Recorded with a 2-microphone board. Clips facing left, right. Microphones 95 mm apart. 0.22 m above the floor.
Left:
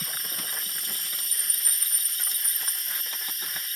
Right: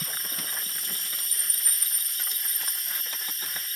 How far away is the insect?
About 1.1 m.